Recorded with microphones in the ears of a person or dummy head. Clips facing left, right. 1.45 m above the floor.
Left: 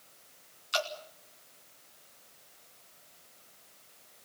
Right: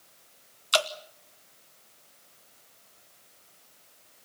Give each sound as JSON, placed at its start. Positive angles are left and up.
{"t": 0.7, "sound": "dripping", "side_deg": -80, "distance_m": 1.3}